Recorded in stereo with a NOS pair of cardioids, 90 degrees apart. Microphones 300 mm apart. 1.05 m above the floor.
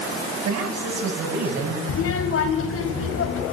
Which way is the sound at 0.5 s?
65° right.